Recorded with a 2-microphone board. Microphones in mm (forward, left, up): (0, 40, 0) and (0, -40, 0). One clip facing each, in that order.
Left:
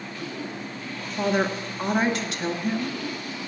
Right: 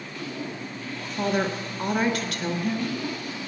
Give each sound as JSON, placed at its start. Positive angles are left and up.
{"t": 1.2, "sound": "a woman speaking", "side_deg": 25, "distance_m": 1.3}